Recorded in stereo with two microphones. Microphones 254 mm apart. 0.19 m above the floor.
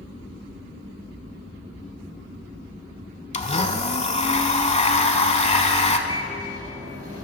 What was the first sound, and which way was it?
A blender, 25° left (ahead or behind).